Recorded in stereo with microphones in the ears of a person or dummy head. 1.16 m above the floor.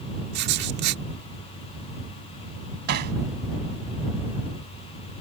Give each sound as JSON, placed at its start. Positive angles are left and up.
{"t": 0.3, "sound": "writing", "side_deg": -60}
{"t": 2.9, "sound": "hammering", "side_deg": -55}